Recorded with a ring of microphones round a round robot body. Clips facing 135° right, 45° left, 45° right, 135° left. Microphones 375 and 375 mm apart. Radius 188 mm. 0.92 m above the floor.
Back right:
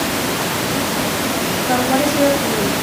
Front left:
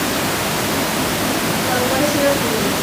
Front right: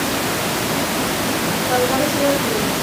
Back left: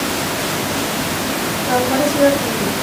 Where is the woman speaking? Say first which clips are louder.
Back right 2 dB, back left 2 dB; 170° left, 4 m.